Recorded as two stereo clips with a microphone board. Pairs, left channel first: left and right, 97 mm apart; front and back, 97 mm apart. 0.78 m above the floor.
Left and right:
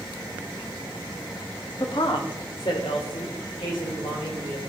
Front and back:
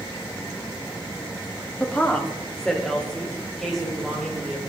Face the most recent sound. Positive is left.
turn(degrees=90)